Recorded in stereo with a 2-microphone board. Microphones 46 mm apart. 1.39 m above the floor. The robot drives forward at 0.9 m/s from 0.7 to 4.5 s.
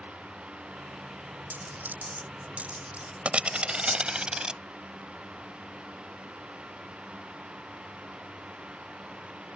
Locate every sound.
1.5 s a dropped coin: 50° right (ahead or behind); by 4.6 s 20° right (ahead or behind)